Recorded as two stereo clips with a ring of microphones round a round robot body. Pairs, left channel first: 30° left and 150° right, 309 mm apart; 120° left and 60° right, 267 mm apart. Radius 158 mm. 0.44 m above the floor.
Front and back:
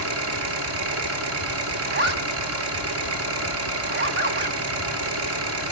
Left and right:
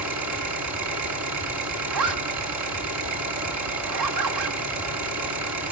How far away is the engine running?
About 3.5 m.